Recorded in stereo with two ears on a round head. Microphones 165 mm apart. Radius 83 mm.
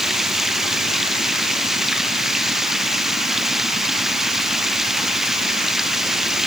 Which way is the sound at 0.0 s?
Centre (ahead or behind).